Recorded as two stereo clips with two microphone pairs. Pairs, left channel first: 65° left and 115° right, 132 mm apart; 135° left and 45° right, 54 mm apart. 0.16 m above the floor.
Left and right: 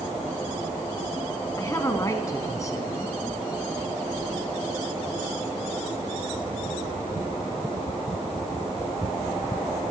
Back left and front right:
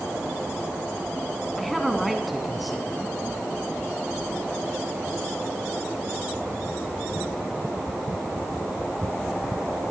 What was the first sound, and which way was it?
A man speaking, 40° left.